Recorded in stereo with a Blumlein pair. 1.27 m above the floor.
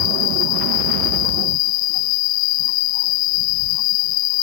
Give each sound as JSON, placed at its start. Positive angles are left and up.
{"t": 0.0, "sound": "an insect", "azimuth_deg": 40}